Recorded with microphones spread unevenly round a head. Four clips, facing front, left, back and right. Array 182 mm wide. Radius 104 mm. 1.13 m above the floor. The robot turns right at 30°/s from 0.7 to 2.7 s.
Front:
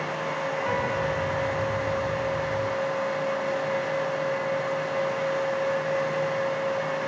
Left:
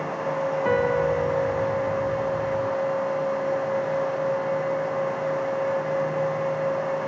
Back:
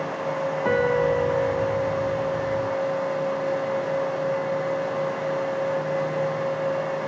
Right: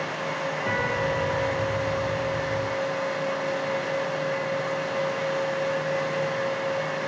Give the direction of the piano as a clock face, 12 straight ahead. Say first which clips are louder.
Left 5 dB, back 8 dB; 7 o'clock.